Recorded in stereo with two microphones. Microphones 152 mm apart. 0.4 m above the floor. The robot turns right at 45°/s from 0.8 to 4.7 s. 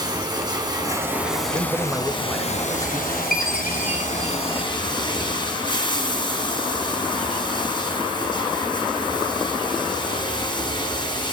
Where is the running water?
30° right, 2 m; by 11.3 s 145° left, 2 m.